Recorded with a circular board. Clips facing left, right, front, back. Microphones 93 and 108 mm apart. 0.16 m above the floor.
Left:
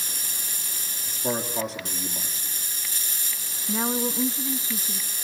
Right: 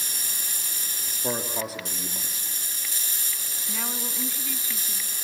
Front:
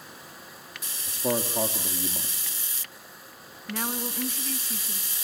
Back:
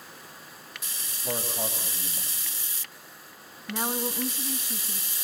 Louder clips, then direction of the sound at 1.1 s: Left 2 dB, front 6 dB; 5° right.